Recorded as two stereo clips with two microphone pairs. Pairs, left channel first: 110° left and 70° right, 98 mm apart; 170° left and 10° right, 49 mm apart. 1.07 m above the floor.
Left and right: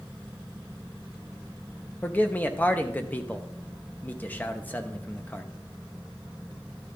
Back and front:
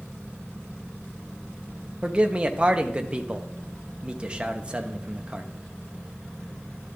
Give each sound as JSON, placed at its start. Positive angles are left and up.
{"t": 2.0, "sound": "a man speaking", "azimuth_deg": 45, "distance_m": 0.8}